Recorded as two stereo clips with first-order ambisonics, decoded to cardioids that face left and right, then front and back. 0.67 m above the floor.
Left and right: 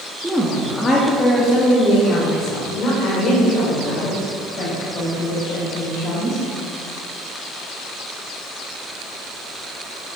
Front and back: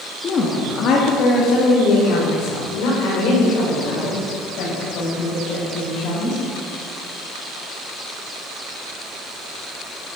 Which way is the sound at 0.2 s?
10° right.